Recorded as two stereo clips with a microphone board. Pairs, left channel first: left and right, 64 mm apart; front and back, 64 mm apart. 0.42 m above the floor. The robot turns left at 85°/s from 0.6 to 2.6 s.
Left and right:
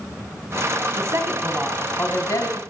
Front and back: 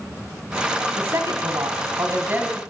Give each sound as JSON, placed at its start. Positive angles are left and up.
{"t": 1.0, "sound": "a woman speaking", "azimuth_deg": -120, "distance_m": 2.5}